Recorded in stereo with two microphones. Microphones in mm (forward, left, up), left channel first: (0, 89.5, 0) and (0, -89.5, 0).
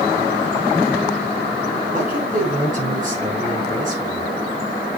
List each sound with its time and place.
1.9 s a man speaking: 45° right (ahead or behind), 6.5 m